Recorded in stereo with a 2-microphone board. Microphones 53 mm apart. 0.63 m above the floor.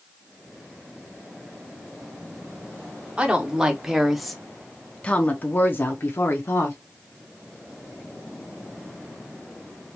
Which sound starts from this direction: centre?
A woman speaking, at 3.2 s.